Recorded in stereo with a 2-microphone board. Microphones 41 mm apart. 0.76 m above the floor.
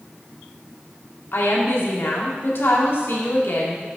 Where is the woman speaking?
70° left (ahead or behind), 1.3 m.